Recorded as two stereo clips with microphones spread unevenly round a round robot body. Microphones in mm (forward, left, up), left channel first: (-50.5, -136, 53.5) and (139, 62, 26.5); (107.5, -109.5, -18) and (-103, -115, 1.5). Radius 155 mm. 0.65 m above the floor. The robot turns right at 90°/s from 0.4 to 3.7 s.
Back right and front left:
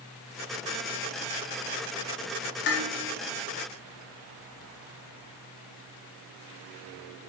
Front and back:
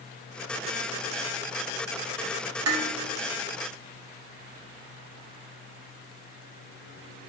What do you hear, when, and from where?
2.7 s dishes clattering: 165° left, 1.1 m; by 2.9 s 175° right, 1.1 m